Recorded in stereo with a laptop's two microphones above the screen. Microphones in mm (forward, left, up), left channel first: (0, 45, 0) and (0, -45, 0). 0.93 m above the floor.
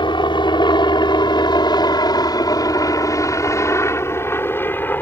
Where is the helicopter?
60° left (ahead or behind); by 5.0 s 20° left (ahead or behind).